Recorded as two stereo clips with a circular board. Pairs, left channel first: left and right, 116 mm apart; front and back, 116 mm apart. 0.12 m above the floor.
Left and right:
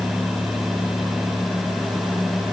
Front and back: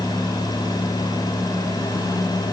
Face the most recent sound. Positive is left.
No sound to turn to.